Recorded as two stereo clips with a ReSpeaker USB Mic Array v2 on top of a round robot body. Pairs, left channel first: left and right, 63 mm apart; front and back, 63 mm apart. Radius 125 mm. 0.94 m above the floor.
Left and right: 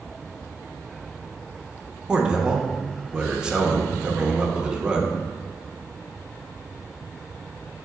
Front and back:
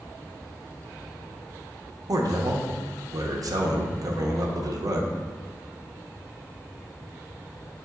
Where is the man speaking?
165° right, 0.5 m.